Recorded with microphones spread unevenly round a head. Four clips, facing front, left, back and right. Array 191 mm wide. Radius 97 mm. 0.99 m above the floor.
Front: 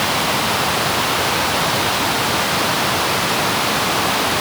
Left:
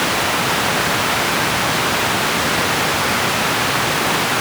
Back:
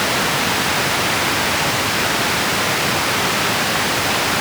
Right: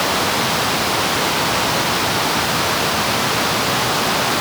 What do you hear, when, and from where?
Only background noise.